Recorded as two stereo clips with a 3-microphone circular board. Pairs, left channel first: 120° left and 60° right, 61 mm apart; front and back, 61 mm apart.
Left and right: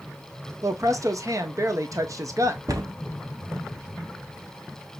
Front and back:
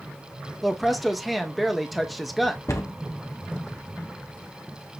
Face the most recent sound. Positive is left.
turn(degrees=-35)